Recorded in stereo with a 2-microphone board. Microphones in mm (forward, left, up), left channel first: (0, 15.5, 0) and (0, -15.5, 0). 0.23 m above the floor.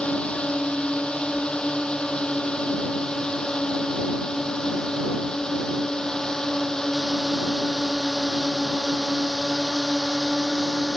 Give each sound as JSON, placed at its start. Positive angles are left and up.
{"t": 0.0, "sound": "a drone", "side_deg": 40}